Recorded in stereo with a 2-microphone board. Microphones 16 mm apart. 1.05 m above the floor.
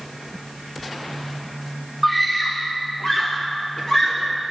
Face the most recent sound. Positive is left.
turn(degrees=70)  # may be behind; listen again after turning